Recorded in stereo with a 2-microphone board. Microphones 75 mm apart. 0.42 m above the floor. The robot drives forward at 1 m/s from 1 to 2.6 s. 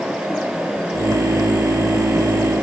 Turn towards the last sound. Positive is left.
No sound to turn to.